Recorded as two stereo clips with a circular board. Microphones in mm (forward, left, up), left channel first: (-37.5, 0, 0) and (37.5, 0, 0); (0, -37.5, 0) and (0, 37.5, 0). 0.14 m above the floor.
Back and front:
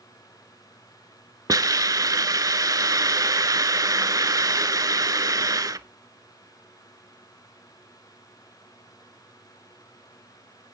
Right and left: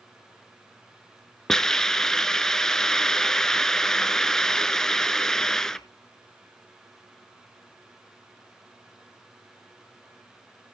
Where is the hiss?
10° right, 0.6 m.